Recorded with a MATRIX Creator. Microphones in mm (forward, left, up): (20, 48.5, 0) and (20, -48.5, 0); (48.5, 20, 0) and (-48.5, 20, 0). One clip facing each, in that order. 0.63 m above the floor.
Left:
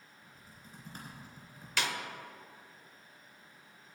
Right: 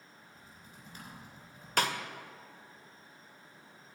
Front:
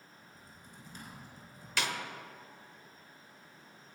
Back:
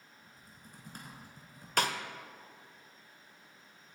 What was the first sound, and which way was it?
Typing on a keyboard, 140° left.